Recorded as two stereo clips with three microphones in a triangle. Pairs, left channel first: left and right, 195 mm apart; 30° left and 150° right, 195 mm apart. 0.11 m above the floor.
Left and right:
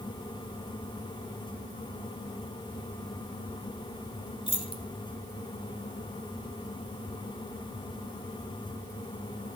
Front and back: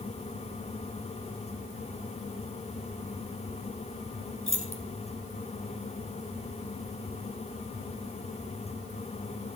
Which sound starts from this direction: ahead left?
Keys jangling, at 4.5 s.